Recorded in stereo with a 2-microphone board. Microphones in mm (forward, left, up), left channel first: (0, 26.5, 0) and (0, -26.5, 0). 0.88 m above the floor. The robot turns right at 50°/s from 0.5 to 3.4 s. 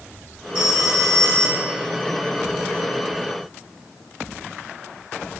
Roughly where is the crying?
I don't hear crying.